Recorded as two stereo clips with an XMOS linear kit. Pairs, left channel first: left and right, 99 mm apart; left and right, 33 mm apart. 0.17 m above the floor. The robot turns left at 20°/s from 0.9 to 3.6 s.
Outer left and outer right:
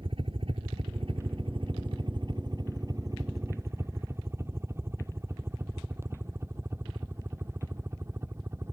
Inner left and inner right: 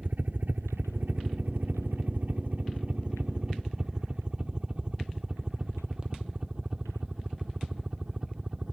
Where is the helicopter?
60° right (ahead or behind); by 8.7 s 25° right (ahead or behind).